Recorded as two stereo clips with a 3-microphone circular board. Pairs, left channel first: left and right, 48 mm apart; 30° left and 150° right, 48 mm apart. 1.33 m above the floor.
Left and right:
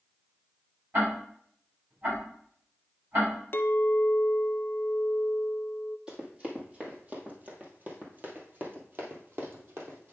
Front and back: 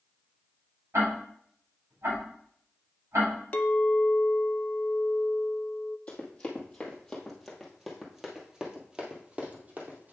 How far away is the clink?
About 0.5 m.